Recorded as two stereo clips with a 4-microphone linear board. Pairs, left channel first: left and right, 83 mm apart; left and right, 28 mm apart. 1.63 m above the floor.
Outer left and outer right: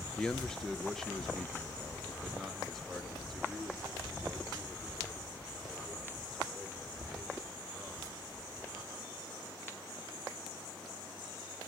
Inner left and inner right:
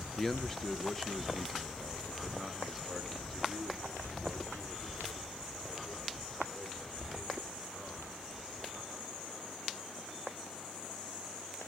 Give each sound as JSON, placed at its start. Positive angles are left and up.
{"t": 0.2, "sound": "a man speaking", "side_deg": 10, "distance_m": 0.6}